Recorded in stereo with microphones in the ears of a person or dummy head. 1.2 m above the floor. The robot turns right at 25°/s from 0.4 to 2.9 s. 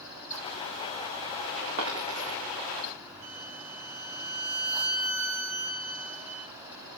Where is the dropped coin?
65° right (ahead or behind), 3.5 m; by 2.4 s 70° right (ahead or behind), 3.5 m.